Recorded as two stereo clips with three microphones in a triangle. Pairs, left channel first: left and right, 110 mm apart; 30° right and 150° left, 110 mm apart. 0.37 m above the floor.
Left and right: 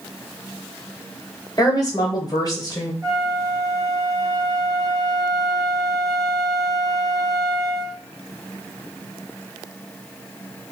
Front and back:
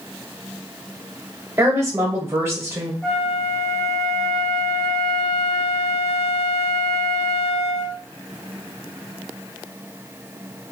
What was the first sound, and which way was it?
A woman speaking, 105° left.